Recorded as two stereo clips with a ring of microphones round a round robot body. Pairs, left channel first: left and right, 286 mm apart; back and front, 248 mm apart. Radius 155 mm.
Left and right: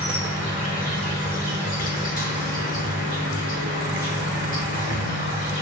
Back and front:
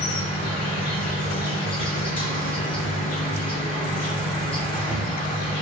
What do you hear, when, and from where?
0.0 s an insect: 130° left, 1.7 m